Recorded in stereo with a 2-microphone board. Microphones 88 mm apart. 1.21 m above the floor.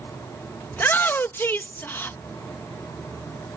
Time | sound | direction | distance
0.7 | a shout | 25° left (ahead or behind) | ?